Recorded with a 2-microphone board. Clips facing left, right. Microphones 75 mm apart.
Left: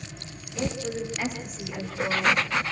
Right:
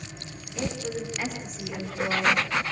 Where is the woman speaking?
5° left (ahead or behind), 9.5 m; by 2.5 s centre (ahead or behind), 10.5 m.